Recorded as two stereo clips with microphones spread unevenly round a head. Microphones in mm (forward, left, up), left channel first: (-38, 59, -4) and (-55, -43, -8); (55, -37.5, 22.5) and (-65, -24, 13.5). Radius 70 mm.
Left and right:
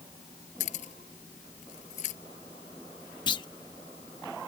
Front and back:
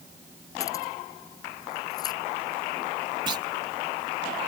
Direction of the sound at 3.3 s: 120° left.